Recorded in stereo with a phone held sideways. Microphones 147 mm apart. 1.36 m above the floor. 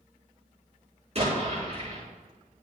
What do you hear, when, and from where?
1.1 s an explosion: 45° right (ahead or behind), 4.5 m